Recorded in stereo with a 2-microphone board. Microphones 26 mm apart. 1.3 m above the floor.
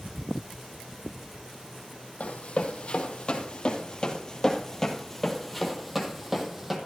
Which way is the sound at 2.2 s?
55° left (ahead or behind).